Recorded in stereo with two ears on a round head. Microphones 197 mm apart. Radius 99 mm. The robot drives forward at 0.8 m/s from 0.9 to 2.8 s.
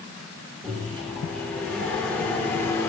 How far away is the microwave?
About 2.5 m.